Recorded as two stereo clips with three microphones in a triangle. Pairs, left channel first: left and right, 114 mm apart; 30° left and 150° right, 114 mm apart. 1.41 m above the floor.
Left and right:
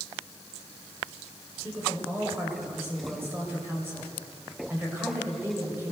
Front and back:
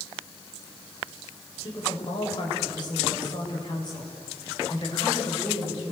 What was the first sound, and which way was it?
A woman speaking, 20° right.